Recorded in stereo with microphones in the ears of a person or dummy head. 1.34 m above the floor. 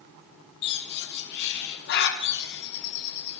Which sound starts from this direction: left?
A bird, at 0.6 s.